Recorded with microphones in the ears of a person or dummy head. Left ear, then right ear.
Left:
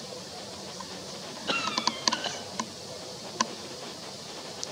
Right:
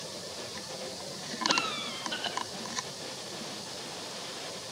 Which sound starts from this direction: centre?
A cough, at 1.5 s.